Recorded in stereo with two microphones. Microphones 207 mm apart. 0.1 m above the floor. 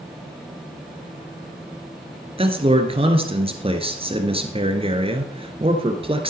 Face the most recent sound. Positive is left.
turn(degrees=-30)  # may be behind; listen again after turning